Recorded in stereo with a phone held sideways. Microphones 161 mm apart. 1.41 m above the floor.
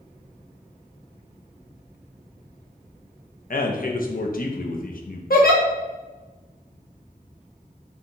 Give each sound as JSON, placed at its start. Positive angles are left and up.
{"t": 3.5, "sound": "a man speaking", "side_deg": 60, "distance_m": 0.6}
{"t": 5.3, "sound": "a giggle", "side_deg": 70, "distance_m": 1.0}